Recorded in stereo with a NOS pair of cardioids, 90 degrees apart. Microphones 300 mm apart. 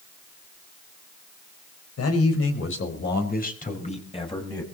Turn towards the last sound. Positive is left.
turn(degrees=10)